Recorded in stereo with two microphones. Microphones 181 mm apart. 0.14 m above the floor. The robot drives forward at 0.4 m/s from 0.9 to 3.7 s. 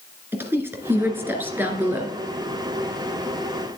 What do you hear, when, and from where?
0.3 s a woman speaking: 15° right (ahead or behind), 1.8 m; by 2.1 s 10° right (ahead or behind), 2 m